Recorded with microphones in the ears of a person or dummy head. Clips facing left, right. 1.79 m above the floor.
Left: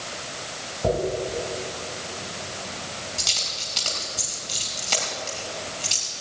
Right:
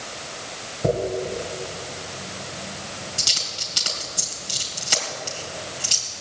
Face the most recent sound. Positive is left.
turn(degrees=-15)  # may be behind; listen again after turning